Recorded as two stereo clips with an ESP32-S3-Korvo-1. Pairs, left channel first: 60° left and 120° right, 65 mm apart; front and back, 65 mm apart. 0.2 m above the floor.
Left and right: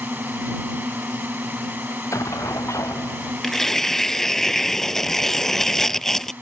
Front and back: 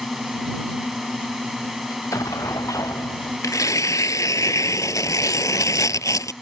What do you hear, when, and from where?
0.0 s a drone: 95° right
1.9 s an explosion: 25° left
3.4 s tearing paper: 20° right